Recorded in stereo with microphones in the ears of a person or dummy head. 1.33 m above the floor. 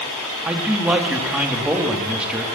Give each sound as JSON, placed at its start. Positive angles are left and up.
{"t": 0.5, "sound": "a man speaking", "side_deg": -10, "distance_m": 3.0}